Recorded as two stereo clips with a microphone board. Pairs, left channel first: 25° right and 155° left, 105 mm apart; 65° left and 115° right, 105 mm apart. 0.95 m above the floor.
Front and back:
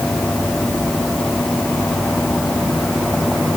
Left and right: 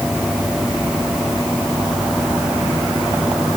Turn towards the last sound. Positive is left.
No sound to turn to.